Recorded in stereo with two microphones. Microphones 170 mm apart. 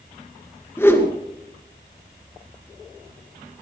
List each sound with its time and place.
0.8 s a whoosh: 15° left (ahead or behind), 2.5 m